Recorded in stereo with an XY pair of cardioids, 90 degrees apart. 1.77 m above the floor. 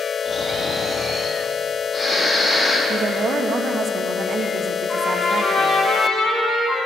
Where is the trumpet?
50° left, 6 m.